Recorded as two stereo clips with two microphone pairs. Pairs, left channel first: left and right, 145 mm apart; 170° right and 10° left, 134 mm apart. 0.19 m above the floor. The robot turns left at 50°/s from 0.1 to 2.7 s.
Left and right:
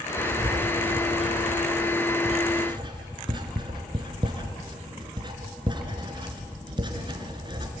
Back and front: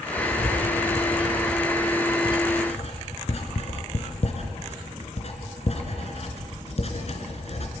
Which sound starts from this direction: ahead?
Writing, at 0.2 s.